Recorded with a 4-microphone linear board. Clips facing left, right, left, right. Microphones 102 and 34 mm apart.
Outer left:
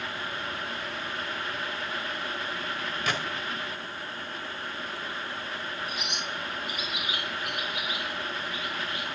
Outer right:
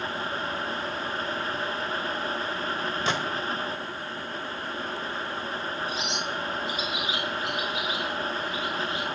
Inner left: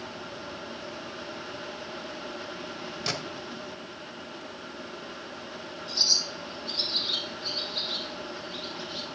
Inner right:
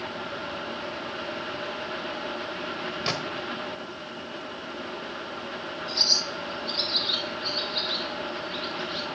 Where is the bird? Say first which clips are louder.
Outer right 4 dB, inner right 1 dB; 25° right (ahead or behind), 3 m.